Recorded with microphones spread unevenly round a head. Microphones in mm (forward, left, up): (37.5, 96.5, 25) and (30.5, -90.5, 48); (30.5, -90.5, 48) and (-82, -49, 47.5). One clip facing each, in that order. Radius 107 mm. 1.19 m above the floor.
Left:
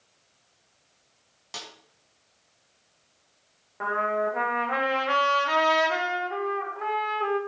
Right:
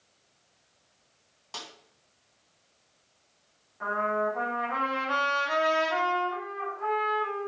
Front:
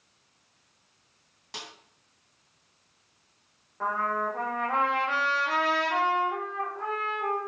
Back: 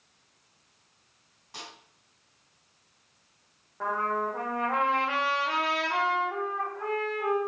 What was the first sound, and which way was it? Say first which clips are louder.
A snare drum: left 1 dB, front 1 dB; 10° left.